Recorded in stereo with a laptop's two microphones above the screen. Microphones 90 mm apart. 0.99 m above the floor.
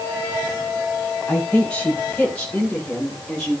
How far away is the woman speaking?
About 9 m.